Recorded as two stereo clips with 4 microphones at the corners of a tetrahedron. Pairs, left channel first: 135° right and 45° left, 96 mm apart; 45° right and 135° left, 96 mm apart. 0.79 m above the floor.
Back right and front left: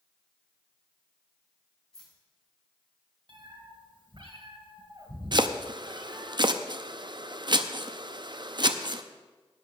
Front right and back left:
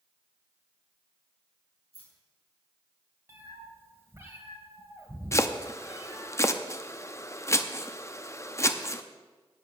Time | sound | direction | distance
1.9 | keys jangling | 50° right | 5 m
3.3 | a cat meowing | 75° left | 2 m
5.3 | chopping | 10° left | 0.6 m